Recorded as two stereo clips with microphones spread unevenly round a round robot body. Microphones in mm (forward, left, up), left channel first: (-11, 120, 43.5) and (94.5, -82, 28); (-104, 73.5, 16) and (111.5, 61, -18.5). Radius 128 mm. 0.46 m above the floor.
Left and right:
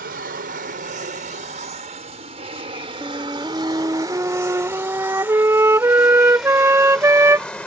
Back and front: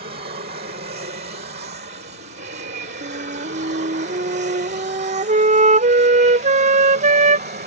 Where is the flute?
5° left.